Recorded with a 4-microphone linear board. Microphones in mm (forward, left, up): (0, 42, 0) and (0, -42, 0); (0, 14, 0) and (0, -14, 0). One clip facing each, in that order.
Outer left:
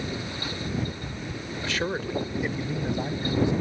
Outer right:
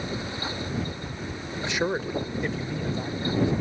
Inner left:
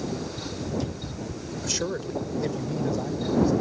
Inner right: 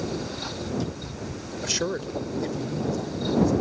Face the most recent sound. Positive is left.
turn(degrees=20)  # may be behind; listen again after turning